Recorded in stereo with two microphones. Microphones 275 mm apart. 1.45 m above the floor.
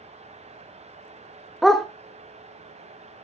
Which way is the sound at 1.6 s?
Centre (ahead or behind).